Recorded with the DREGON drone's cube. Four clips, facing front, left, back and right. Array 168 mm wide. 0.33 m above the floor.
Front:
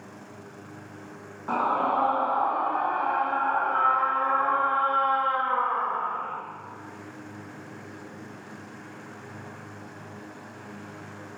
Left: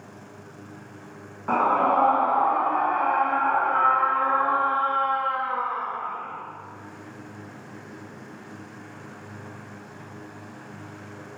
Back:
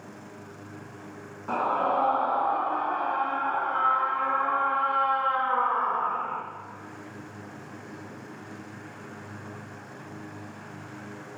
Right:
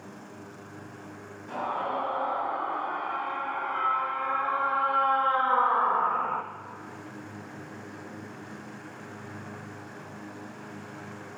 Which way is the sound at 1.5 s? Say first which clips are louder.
Left 10 dB, front 1 dB; 70° left.